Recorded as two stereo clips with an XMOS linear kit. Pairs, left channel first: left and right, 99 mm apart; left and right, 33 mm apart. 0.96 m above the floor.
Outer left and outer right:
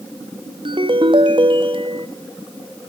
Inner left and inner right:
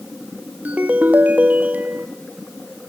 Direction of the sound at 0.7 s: 55° right (ahead or behind).